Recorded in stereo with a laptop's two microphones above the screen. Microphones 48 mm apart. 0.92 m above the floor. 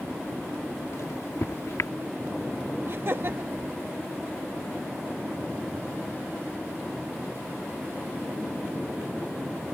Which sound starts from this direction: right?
Laughter, at 2.9 s.